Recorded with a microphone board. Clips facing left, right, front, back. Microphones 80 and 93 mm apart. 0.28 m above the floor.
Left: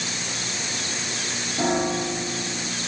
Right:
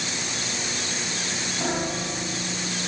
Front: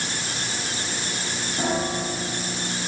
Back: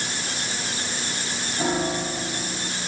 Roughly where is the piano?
Left.